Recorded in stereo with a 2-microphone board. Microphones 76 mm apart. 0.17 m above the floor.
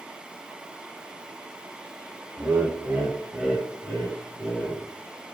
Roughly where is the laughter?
Right.